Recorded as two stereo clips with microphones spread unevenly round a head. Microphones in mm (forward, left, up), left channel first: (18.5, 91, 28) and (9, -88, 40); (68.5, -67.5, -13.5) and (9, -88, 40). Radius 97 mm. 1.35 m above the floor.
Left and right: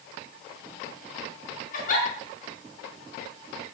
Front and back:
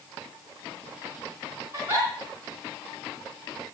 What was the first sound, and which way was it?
A giggle, 135° left.